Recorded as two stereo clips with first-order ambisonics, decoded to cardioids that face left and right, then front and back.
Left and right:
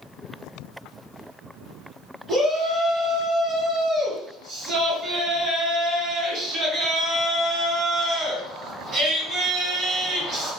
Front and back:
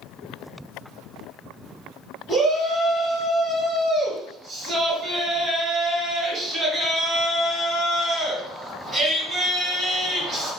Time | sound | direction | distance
2.3 | a shout | 120° right | 1.6 m